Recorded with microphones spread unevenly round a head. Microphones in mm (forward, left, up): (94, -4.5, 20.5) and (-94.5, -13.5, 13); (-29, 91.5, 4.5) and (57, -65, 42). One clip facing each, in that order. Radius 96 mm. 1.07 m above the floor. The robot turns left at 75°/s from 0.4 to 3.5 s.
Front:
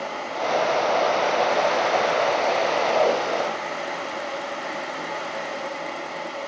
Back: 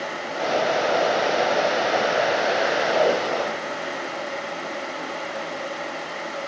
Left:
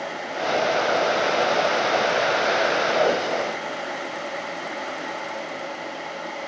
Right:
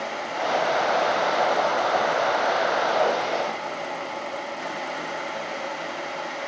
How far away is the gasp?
I don't hear a gasp.